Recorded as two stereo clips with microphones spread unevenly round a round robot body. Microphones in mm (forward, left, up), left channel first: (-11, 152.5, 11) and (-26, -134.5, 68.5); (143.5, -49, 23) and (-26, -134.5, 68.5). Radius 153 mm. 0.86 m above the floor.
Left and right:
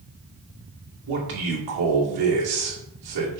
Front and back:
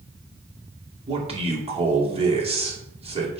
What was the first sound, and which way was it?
A man speaking, 90° right.